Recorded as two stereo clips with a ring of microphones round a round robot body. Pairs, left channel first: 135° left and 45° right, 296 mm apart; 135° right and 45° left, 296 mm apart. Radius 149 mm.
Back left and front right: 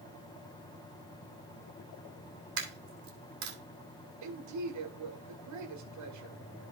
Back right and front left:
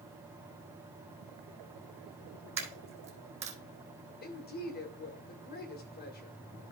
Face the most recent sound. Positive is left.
turn(degrees=-75)